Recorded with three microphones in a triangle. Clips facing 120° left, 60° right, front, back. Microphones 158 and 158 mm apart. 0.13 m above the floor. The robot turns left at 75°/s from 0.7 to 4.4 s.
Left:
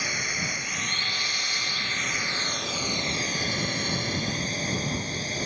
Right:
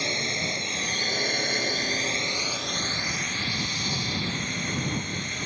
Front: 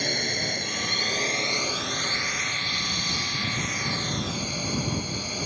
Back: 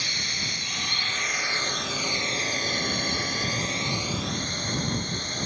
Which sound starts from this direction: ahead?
A drone, at 0.0 s.